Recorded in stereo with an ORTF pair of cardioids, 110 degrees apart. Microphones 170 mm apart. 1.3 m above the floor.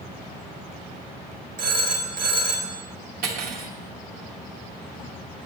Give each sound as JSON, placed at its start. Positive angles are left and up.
{"t": 1.6, "sound": "a phone ringing", "azimuth_deg": -60, "distance_m": 1.5}
{"t": 3.2, "sound": "cutlery clinking", "azimuth_deg": -60, "distance_m": 1.3}